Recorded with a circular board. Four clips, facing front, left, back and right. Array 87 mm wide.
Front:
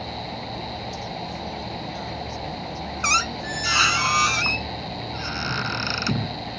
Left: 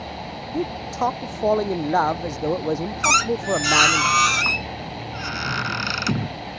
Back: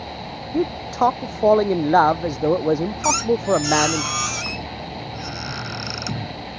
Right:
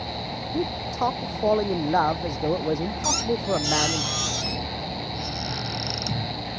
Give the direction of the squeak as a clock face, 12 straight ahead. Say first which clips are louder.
Left 7 dB, back 5 dB; 10 o'clock.